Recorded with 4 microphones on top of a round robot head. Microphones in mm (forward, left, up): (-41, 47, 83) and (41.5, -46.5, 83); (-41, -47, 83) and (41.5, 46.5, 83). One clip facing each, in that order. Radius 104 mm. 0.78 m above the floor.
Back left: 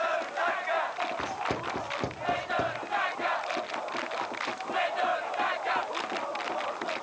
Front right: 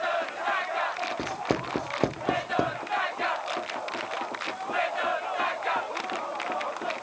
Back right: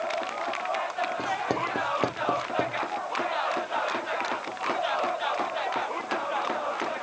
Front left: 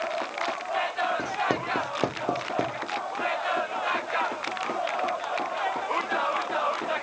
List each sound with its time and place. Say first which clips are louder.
1.2 s writing: front right 3 dB, even; 35° right, 0.5 m